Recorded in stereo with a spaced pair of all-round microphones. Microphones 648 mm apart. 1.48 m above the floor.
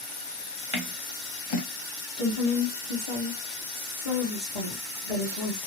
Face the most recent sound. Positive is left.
turn(degrees=60)  # may be behind; listen again after turning